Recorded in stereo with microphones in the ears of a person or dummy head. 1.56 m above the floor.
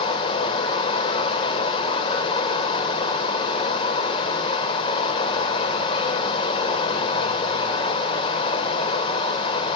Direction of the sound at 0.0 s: 30° left (ahead or behind).